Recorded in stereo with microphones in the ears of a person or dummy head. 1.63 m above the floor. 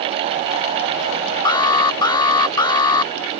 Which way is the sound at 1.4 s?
30° left (ahead or behind).